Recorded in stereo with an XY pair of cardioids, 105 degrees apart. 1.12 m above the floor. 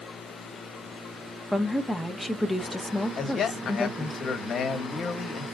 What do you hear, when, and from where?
1.5 s a woman speaking: 5° left, 0.9 m
3.2 s a man speaking: 55° left, 1.5 m